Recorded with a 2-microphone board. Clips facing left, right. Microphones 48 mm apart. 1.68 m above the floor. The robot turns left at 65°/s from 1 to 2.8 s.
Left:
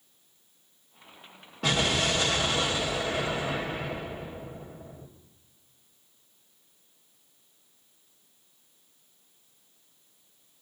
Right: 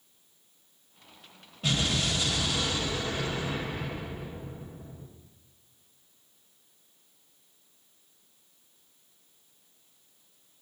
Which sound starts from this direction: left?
An explosion, at 1.6 s.